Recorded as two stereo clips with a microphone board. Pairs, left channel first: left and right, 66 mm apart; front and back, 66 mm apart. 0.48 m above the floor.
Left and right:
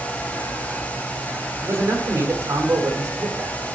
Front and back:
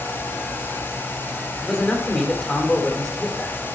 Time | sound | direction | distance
1.6 | a man speaking | 90° right | 1.9 m